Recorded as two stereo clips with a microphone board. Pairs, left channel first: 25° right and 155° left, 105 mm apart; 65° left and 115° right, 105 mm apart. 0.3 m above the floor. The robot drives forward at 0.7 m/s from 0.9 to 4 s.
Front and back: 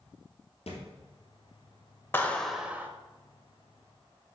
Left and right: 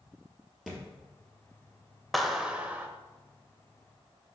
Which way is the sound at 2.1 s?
20° right.